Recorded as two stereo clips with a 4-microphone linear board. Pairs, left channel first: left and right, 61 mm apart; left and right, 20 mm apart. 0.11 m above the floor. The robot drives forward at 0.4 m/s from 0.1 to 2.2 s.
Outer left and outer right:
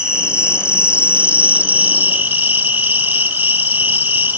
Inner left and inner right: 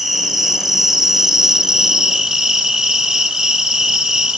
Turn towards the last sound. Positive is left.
turn(degrees=-30)  # may be behind; listen again after turning